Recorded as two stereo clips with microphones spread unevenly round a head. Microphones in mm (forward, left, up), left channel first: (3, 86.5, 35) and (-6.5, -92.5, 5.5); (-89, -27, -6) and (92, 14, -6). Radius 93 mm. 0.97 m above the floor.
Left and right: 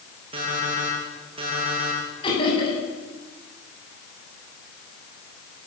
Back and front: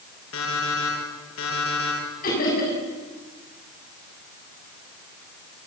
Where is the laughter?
150° left, 7 m.